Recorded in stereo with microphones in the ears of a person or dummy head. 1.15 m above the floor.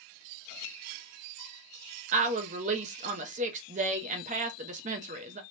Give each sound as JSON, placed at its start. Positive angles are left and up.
{"t": 2.1, "sound": "a woman speaking", "side_deg": -35, "distance_m": 0.6}